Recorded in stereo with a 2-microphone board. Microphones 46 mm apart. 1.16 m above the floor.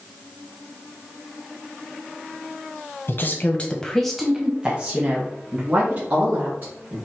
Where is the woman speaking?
55° left (ahead or behind), 0.9 m; by 7.0 s 45° right (ahead or behind), 2.5 m.